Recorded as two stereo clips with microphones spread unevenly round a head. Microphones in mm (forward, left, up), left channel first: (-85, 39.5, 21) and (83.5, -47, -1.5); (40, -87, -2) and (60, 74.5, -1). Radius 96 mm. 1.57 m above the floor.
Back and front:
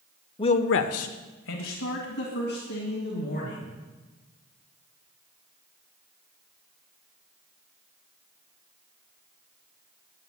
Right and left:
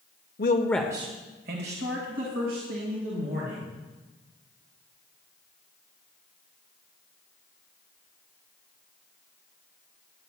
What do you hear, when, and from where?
0.4 s a man speaking: 135° right, 0.8 m; by 3.7 s 110° left, 4.5 m